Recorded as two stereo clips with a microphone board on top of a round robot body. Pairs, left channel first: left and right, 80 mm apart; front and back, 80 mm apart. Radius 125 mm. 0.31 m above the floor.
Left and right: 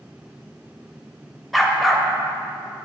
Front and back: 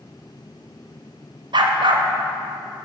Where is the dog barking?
Straight behind, 0.8 m.